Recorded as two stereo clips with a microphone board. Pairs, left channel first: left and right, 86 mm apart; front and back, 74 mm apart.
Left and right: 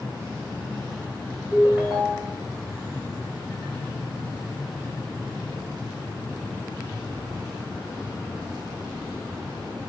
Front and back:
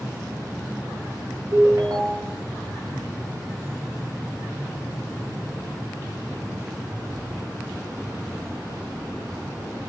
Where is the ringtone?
160° right, 1.1 m.